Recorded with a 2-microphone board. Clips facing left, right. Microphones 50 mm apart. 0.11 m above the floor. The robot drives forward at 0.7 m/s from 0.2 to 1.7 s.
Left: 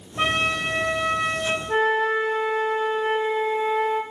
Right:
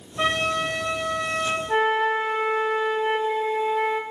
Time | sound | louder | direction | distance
0.2 | a trumpet | even | 35° left (ahead or behind) | 0.7 m
1.7 | a flute | left 1 dB | 15° right (ahead or behind) | 0.5 m